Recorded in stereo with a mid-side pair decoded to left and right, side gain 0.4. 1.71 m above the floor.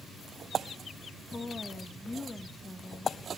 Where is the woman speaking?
15° left, 2.0 m.